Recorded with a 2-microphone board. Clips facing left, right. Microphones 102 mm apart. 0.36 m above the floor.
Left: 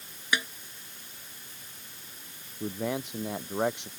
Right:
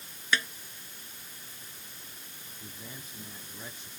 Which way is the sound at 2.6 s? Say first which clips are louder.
Left 17 dB; 75° left (ahead or behind).